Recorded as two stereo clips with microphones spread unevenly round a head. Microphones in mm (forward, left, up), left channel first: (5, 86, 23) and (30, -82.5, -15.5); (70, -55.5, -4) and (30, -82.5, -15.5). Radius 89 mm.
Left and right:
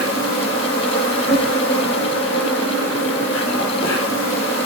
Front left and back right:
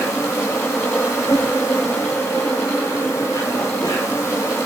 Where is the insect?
90° left, 6 m.